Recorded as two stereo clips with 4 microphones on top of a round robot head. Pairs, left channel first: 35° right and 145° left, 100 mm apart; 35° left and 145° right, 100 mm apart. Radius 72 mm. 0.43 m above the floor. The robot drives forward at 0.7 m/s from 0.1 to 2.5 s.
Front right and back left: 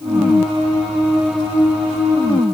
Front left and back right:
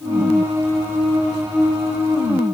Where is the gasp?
I don't hear a gasp.